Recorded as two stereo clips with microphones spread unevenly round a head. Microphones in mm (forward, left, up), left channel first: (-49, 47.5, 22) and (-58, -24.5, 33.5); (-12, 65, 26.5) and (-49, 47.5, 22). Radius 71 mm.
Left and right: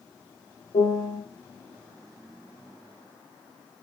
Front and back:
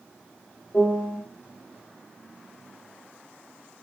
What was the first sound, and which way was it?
A piano, 85° left.